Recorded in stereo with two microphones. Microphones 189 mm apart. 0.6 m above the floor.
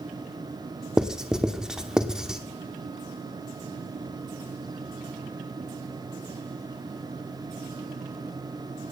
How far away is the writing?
About 1.0 m.